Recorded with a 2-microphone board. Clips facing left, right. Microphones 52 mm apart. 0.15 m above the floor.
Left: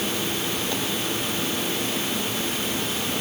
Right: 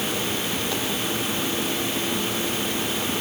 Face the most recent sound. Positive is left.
No sound to turn to.